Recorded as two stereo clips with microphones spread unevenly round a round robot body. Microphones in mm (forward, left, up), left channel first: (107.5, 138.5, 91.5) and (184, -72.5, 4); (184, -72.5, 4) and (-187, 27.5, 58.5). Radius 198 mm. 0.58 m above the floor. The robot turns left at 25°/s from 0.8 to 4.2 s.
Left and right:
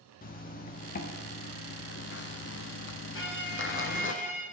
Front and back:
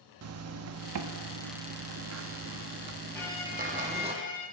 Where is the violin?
70° left, 1.9 m; by 4.4 s 45° left, 1.9 m.